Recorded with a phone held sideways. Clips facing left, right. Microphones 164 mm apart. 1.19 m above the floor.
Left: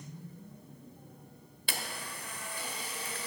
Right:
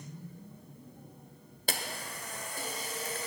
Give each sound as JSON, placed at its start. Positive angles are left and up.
{"t": 1.7, "sound": "a camera shutter", "side_deg": -45, "distance_m": 1.3}